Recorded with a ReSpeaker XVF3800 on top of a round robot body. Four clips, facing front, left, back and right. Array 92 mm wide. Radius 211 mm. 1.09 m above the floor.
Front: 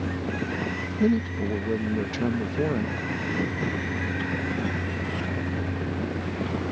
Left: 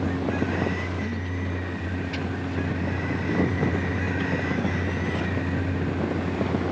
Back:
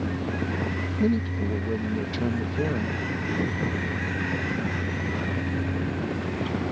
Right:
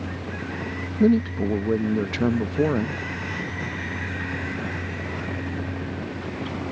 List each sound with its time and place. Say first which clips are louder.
1.0 s a man speaking: right 11 dB, front 2 dB; 80° right